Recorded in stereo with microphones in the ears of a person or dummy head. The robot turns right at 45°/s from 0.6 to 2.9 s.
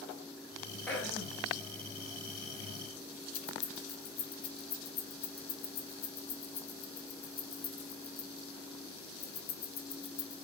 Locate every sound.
0.9 s throat clearing: 10° left (ahead or behind), 0.6 m; by 1.4 s 15° right (ahead or behind), 0.6 m
3.3 s keys jangling: 50° left (ahead or behind), 0.6 m